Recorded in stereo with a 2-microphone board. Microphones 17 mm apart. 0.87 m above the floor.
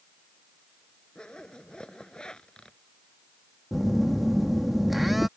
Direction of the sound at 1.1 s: 65° left (ahead or behind).